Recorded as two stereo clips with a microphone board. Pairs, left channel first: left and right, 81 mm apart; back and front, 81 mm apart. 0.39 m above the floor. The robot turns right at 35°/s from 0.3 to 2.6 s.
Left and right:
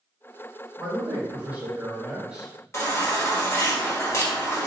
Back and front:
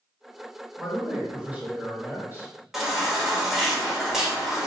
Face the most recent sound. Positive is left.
turn(degrees=80)